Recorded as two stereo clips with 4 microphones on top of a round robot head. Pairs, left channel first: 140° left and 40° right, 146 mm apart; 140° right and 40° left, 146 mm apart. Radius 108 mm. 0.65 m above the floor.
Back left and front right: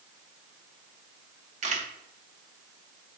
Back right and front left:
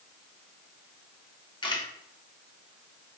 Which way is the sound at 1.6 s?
80° right.